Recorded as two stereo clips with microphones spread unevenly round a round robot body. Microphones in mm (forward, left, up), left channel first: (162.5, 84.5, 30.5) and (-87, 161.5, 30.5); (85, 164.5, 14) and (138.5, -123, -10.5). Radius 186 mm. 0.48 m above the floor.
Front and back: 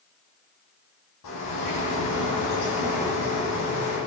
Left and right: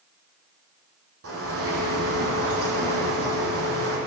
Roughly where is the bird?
Ahead right.